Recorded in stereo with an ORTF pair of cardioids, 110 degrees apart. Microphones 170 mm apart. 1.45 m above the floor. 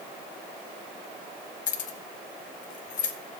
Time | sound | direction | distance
1.7 | keys jangling | 55° left | 1.0 m